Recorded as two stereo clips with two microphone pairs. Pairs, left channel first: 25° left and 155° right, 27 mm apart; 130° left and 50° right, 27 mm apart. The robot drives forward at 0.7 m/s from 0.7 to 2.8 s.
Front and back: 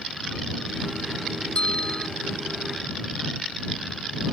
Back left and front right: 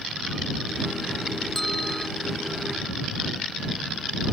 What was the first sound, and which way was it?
A bell, 50° left.